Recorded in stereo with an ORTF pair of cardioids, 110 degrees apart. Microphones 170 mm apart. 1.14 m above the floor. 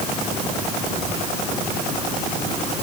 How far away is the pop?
No pop in this recording.